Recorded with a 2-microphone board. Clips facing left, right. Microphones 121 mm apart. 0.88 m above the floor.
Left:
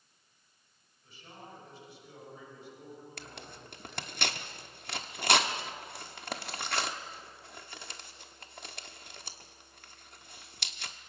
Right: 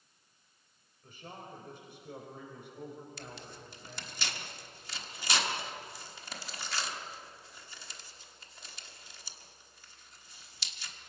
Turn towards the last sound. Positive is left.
turn(degrees=60)  # may be behind; listen again after turning